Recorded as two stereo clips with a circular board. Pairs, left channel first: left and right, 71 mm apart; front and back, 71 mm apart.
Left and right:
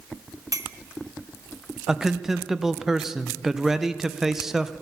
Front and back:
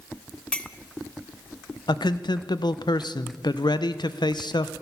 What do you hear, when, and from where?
0.5 s a clink: 70° right, 0.6 m
1.9 s a man speaking: 10° right, 0.6 m